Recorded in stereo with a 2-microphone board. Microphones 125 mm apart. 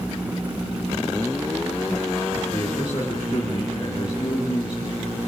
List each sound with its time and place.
2.5 s a man speaking: 40° left (ahead or behind), 4.5 m